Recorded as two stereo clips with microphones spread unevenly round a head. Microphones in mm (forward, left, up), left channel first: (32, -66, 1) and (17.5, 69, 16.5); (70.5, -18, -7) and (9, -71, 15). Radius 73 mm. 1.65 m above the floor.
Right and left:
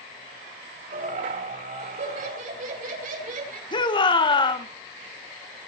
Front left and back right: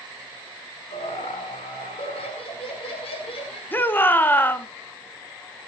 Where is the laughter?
70° left, 8.5 m; by 3.6 s 75° left, 7.5 m.